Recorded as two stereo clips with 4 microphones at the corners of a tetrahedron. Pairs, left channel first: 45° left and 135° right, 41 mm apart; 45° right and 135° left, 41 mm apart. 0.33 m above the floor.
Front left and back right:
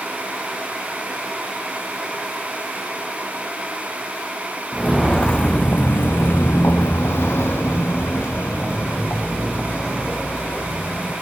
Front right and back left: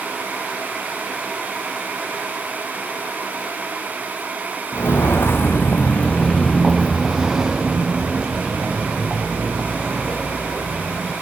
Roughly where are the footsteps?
Ahead right.